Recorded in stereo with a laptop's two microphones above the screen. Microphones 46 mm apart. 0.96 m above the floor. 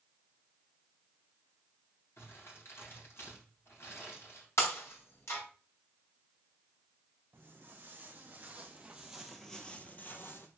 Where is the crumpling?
65° left (ahead or behind), 3 m.